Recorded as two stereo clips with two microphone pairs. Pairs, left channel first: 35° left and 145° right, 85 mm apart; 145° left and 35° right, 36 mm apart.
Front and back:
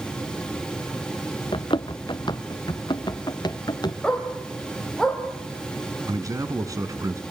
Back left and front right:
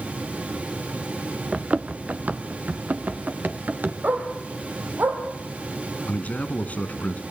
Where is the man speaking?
175° left, 2.5 m.